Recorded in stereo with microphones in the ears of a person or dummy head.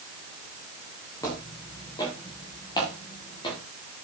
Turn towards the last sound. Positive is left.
turn(degrees=25)  # may be behind; listen again after turning